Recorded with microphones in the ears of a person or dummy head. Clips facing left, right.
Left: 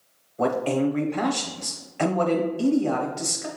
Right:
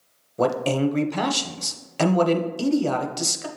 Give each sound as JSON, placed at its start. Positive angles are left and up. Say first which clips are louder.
{"t": 0.4, "sound": "a man speaking", "louder": "right 1 dB", "side_deg": -45, "distance_m": 0.7}